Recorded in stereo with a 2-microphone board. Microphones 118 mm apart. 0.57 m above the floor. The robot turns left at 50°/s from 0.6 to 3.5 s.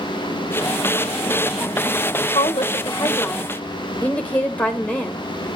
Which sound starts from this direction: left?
A woman speaking, at 2.3 s.